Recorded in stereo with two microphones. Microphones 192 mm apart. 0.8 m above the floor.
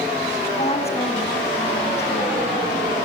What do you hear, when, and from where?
0.6 s a woman speaking: 35° left (ahead or behind), 5 m